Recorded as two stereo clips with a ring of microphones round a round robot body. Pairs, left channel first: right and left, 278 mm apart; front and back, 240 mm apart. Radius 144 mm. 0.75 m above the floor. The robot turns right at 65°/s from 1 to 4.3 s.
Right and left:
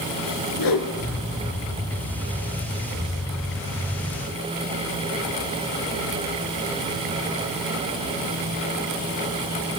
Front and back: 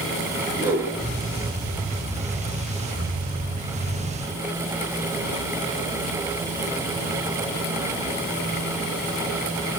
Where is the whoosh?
100° right, 4.5 m.